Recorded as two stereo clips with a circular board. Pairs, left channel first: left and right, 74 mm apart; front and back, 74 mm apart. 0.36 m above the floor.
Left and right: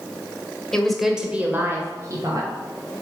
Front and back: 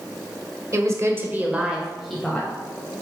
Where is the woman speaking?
170° left, 1.5 m; by 2.5 s 80° right, 1.8 m.